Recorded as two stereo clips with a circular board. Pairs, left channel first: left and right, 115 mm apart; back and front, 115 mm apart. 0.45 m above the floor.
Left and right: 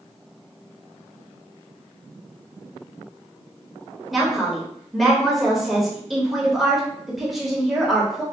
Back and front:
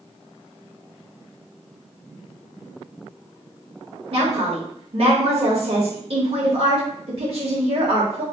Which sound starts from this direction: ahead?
A woman speaking, at 4.1 s.